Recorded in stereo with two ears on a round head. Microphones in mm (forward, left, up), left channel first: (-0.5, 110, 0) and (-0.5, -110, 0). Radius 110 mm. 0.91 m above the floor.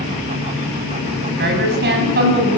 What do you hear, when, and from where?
1.3 s a woman speaking: 45° right (ahead or behind), 6.5 m; by 2.6 s 40° right (ahead or behind), 7 m